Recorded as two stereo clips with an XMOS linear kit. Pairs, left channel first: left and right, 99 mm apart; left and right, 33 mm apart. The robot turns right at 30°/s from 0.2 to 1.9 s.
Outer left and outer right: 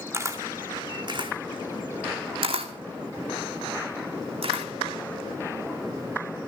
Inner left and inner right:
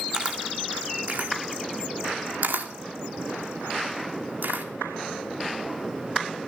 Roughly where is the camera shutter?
Right.